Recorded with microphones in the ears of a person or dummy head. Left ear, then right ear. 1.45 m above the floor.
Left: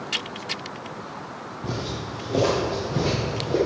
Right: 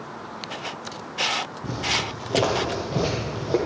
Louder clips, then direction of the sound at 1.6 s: Right 4 dB; 10° left (ahead or behind).